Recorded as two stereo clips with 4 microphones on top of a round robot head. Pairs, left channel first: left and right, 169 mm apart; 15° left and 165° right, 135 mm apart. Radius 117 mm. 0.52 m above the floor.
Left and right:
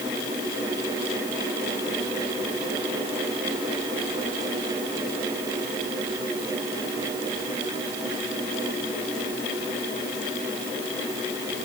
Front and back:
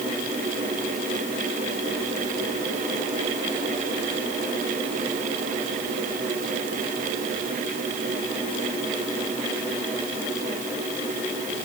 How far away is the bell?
No bell in this recording.